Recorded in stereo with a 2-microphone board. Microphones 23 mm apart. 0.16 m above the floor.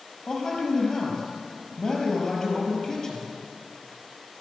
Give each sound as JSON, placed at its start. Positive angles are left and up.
{"t": 0.3, "sound": "a man speaking", "side_deg": 30, "distance_m": 4.5}